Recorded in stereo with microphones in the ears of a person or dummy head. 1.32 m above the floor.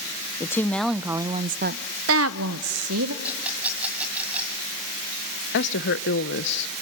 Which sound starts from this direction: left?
A woman speaking, at 5.5 s.